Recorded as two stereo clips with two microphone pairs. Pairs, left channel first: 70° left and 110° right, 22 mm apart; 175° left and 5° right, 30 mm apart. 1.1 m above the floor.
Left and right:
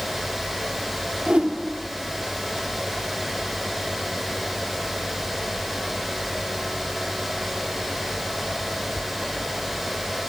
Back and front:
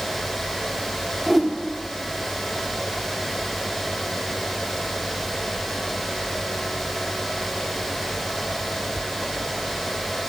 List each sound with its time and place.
1.3 s a whoosh: 90° right, 1.2 m